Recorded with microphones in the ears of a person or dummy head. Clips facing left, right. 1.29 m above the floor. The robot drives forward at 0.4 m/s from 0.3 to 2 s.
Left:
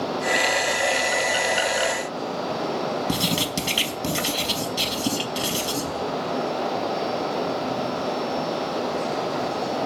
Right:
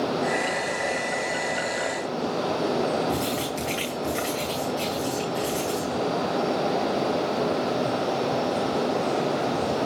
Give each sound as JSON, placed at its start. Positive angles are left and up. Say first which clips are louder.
{"t": 3.1, "sound": "writing", "louder": "left 1 dB", "side_deg": 50, "distance_m": 5.0}